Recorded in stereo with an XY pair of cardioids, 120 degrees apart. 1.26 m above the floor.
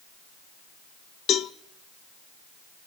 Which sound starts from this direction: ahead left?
A cowbell, at 1.3 s.